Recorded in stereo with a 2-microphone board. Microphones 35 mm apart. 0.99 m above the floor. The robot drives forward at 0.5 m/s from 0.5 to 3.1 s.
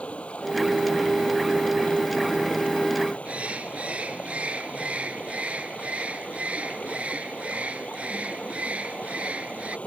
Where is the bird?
45° right (ahead or behind).